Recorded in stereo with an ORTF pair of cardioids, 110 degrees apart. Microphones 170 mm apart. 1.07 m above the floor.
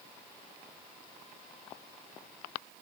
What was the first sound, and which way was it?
Only background noise.